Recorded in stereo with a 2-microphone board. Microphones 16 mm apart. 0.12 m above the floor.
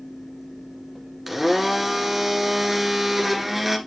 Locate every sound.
1.3 s a blender: 10° right (ahead or behind), 1.3 m